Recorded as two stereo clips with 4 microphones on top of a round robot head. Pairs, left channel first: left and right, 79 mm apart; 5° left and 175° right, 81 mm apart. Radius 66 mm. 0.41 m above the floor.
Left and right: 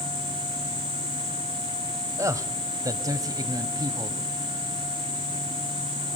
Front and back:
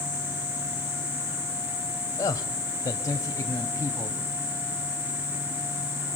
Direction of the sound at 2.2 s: 45° right.